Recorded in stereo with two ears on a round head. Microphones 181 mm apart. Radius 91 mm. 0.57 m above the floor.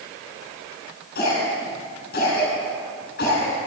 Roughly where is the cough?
Left.